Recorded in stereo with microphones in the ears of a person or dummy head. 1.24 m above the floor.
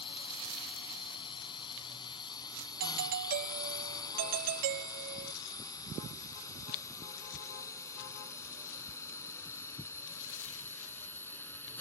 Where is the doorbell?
45° right (ahead or behind).